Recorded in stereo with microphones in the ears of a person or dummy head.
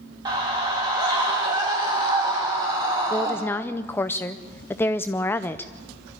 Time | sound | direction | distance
0.2 | a scream | 25° right (ahead or behind) | 2.5 m
3.1 | a woman speaking | 10° left (ahead or behind) | 0.6 m